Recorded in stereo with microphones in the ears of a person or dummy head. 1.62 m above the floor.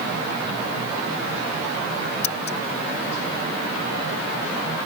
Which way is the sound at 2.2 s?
40° left (ahead or behind).